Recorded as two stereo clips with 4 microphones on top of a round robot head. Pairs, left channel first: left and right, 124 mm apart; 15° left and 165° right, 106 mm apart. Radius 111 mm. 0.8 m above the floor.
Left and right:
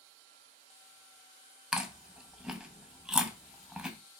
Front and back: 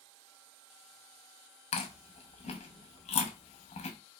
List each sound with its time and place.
1.7 s chewing: 5° right, 0.6 m